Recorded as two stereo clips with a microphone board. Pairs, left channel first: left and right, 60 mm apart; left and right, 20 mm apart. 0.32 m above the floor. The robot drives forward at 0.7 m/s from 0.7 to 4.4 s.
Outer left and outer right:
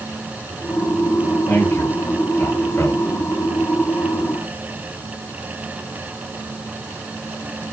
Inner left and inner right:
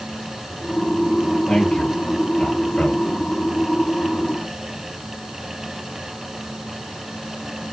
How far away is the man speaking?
About 7 m.